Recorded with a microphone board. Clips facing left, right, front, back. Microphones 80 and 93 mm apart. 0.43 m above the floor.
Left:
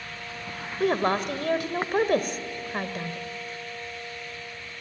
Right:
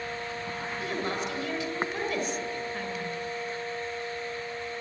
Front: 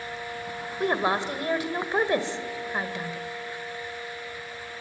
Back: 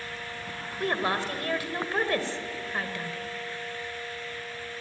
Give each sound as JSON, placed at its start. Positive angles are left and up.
{"t": 0.8, "sound": "a woman speaking", "azimuth_deg": 70, "distance_m": 2.0}